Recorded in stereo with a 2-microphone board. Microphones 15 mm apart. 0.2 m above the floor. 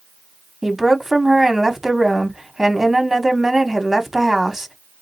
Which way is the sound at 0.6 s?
25° right (ahead or behind).